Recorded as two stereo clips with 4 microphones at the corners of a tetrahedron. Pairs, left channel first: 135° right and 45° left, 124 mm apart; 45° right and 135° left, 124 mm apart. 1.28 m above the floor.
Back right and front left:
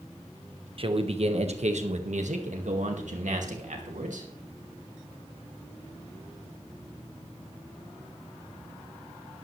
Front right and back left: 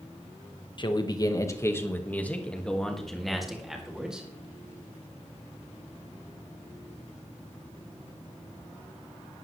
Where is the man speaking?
5° left, 1.4 m; by 4.3 s 50° left, 3 m.